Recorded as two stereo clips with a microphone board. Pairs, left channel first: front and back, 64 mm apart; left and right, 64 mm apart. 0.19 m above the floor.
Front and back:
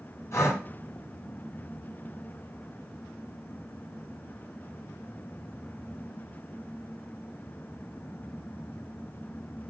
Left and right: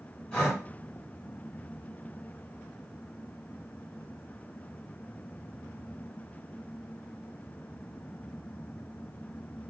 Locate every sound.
0.3 s breathing: 25° left, 2.5 m